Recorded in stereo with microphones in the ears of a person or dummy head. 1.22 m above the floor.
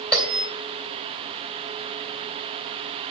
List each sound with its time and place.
0.1 s a bell: 5° left (ahead or behind), 3 m